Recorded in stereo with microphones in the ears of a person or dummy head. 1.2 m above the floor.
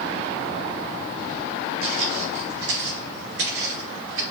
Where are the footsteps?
60° right (ahead or behind), 3 m; by 4.2 s 65° right (ahead or behind), 4 m.